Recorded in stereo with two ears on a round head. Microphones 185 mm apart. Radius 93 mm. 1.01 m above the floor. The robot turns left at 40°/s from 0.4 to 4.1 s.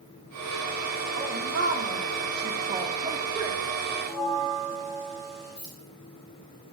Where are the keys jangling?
60° left (ahead or behind), 4.5 m.